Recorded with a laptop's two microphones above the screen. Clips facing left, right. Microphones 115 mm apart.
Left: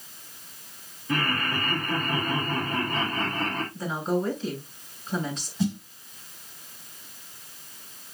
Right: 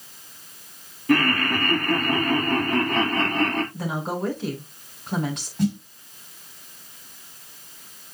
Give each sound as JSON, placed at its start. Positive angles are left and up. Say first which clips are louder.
{"t": 1.1, "sound": "laughter", "louder": "right 7 dB", "side_deg": -80, "distance_m": 2.0}
{"t": 3.7, "sound": "a woman speaking", "louder": "left 1 dB", "side_deg": -70, "distance_m": 5.0}
{"t": 5.6, "sound": "a snare drum", "louder": "right 4 dB", "side_deg": -55, "distance_m": 5.0}